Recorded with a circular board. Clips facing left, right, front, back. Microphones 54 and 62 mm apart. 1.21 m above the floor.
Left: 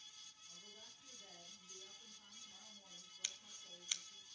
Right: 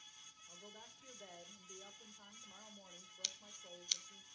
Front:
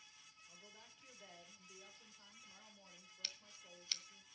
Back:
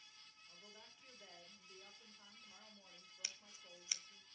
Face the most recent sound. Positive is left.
turn(degrees=135)